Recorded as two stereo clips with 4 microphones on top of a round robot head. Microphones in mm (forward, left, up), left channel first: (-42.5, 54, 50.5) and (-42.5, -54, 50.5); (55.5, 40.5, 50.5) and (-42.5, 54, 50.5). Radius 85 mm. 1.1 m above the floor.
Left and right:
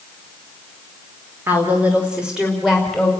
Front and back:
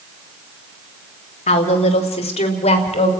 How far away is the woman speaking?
About 3 m.